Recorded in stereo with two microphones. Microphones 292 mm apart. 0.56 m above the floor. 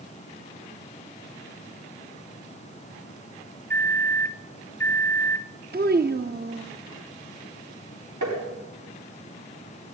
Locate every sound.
3.7 s a microwave: 10° left (ahead or behind), 0.6 m
5.7 s a child speaking: 35° right (ahead or behind), 0.6 m
8.2 s tapping: 80° right, 5 m